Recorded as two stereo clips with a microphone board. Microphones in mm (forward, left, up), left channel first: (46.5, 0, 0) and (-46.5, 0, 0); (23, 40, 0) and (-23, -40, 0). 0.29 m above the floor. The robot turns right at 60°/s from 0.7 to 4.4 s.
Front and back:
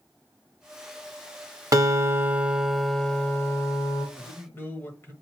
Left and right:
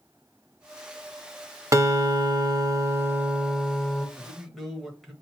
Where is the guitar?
155° right, 0.6 m; by 4.1 s 15° right, 0.6 m.